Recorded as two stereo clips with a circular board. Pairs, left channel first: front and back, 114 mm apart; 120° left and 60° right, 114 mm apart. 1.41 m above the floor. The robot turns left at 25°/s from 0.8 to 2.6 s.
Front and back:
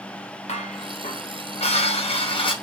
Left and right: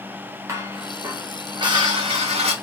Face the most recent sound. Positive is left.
turn(degrees=-40)